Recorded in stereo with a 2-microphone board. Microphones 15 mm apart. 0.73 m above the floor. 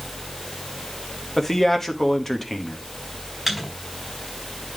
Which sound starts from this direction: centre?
A microwave, at 3.5 s.